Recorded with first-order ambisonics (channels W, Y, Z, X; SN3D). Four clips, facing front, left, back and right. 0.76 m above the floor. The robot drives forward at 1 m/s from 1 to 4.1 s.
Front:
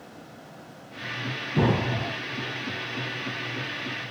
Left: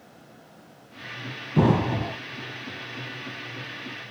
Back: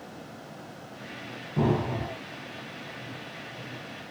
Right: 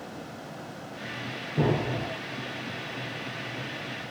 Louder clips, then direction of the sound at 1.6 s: Left 5 dB, front 2 dB; 75° left.